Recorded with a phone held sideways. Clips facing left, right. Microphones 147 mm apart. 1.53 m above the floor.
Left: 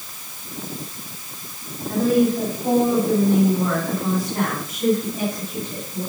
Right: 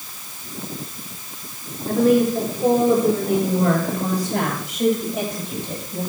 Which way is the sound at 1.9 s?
75° right (ahead or behind).